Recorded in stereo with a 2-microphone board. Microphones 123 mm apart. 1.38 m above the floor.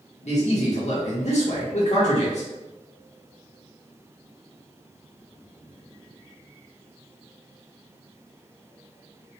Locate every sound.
0.2 s a man speaking: 65° left (ahead or behind), 0.9 m